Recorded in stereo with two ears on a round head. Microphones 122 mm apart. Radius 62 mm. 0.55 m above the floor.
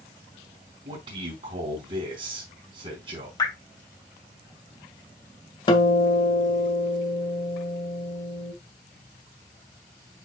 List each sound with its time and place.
0.8 s a man speaking: 45° right (ahead or behind), 3 m
3.4 s dripping: 30° left (ahead or behind), 3 m
5.7 s a guitar: 35° left (ahead or behind), 1.6 m